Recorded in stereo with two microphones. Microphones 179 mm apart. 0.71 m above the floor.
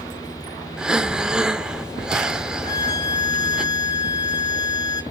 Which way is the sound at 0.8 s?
5° right (ahead or behind).